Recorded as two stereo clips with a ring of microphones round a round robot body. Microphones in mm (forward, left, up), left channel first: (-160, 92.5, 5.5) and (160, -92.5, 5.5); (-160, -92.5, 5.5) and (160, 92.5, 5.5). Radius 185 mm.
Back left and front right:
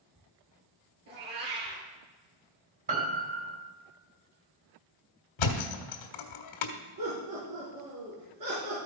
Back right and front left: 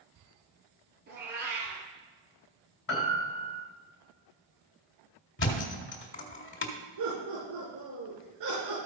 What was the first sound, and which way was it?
A cat meowing, 35° right.